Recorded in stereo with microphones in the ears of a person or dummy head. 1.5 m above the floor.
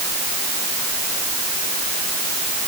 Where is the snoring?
I don't hear snoring.